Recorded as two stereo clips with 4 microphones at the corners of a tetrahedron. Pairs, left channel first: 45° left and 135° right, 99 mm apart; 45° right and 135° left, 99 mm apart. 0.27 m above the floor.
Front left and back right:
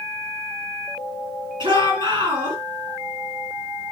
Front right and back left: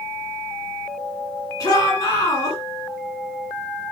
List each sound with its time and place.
1.6 s a shout: 90° right, 9 m